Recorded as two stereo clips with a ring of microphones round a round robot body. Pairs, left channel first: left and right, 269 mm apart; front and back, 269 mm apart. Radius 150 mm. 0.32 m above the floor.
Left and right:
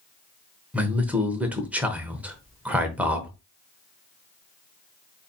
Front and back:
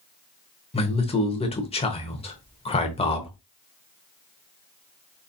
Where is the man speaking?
15° right, 0.9 m.